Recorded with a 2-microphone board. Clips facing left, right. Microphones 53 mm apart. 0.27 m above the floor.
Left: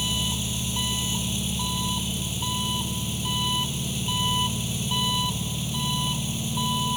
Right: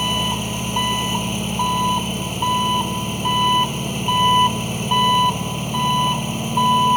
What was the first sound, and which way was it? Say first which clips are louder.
An engine running: right 8 dB; 50° right (ahead or behind).